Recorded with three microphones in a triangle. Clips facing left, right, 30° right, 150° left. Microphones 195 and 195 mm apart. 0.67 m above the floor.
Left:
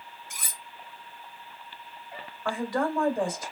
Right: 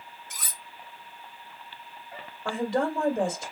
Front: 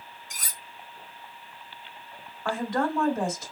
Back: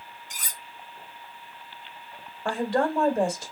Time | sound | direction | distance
0.3 | cutlery clinking | 15° left | 1.7 m
2.5 | a woman speaking | 155° right | 2.5 m